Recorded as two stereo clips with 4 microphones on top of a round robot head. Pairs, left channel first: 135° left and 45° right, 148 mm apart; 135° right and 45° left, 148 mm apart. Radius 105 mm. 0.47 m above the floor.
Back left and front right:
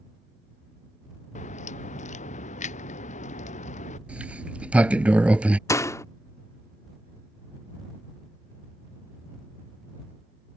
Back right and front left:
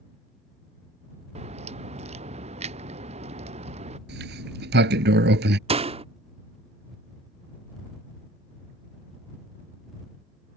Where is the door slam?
70° left.